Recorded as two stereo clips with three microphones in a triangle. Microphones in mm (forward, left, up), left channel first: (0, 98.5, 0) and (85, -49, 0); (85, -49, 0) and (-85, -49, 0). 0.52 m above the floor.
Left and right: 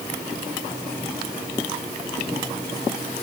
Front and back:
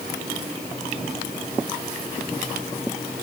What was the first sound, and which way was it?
Only background noise.